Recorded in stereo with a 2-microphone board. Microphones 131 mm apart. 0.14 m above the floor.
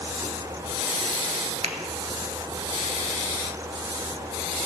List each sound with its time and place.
1.6 s a finger snap: 55° right (ahead or behind), 1.4 m